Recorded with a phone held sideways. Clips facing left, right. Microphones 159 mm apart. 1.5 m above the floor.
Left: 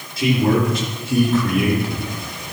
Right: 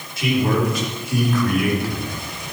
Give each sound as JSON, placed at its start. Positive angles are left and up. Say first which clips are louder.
{"t": 0.2, "sound": "a man speaking", "louder": "left 3 dB", "side_deg": 35, "distance_m": 4.0}